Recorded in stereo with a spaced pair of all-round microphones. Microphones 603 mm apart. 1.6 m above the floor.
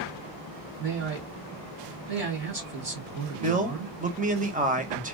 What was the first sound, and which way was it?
A man speaking, 80° right.